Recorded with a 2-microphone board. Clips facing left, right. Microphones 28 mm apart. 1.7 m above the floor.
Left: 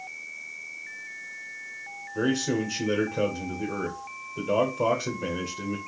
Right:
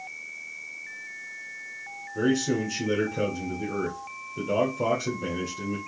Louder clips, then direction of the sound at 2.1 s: Right 1 dB; 15° left (ahead or behind).